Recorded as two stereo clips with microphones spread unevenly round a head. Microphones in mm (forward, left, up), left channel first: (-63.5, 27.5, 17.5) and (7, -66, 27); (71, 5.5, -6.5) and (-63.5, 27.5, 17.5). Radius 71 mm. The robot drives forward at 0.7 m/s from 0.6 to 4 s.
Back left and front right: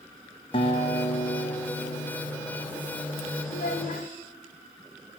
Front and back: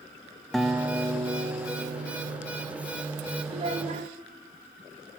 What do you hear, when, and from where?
0.5 s a guitar: 75° left, 0.8 m; by 2.6 s 145° left, 1.4 m
3.5 s a child speaking: 120° left, 0.9 m; by 4.1 s 135° left, 1.1 m